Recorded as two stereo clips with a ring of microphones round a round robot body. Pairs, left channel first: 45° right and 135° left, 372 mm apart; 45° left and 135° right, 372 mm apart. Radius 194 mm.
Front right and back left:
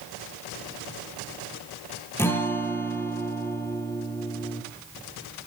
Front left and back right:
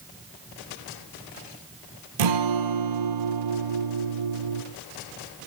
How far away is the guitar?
About 5 m.